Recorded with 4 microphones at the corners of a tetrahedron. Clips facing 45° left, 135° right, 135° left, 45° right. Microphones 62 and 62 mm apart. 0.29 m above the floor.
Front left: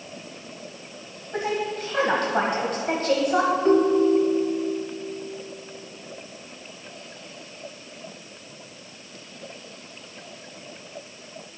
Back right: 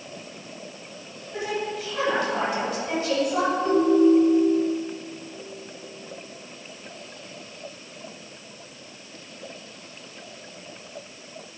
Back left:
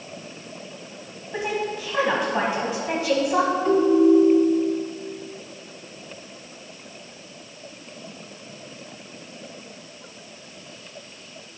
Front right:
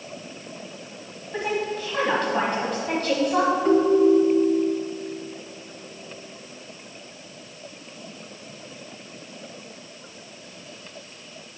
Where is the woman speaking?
55° left, 1.5 m.